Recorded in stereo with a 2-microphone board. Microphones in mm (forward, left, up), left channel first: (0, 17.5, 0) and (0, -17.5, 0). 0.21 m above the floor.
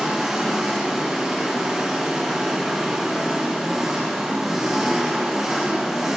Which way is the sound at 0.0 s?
10° right (ahead or behind).